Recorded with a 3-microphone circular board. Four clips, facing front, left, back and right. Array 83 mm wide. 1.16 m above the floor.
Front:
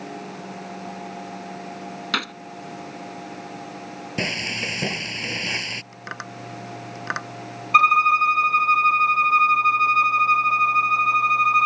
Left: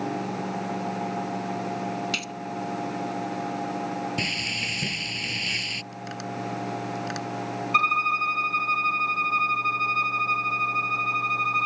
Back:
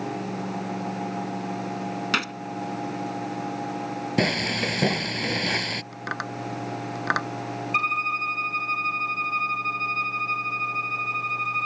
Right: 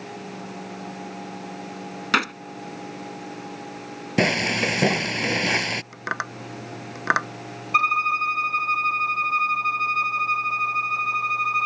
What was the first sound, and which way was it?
A gunshot, 85° right.